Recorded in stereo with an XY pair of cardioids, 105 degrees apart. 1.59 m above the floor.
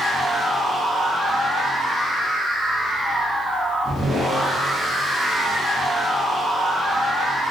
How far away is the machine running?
About 1.3 m.